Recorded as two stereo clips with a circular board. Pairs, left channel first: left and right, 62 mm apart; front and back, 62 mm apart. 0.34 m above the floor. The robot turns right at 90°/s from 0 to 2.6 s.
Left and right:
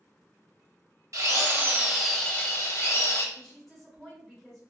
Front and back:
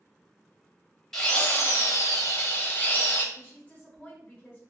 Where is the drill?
80° right, 0.6 m; by 3.2 s 50° left, 0.6 m.